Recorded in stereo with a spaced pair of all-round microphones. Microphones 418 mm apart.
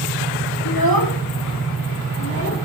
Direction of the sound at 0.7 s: 60° left (ahead or behind).